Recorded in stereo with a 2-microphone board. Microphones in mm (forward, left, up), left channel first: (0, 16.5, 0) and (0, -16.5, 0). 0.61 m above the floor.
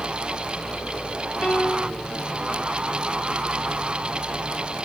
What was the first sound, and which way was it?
A piano, 40° left (ahead or behind).